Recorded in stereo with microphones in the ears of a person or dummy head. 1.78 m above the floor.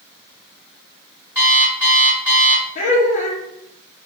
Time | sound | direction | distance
1.4 | an alarm clock | 15° right (ahead or behind) | 1.7 m
2.8 | laughter | 45° left (ahead or behind) | 0.8 m